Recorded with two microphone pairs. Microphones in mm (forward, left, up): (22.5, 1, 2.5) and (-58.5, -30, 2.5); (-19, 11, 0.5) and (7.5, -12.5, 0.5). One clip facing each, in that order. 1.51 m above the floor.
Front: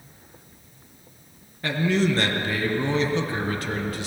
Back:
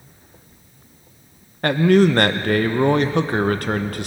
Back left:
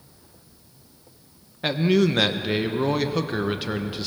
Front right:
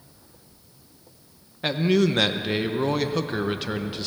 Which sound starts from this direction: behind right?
A man speaking, at 1.6 s.